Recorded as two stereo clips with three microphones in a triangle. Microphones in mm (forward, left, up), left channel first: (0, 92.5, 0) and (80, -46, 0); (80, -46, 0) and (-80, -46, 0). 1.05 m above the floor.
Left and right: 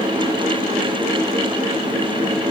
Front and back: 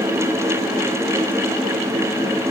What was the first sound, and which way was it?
Only background noise.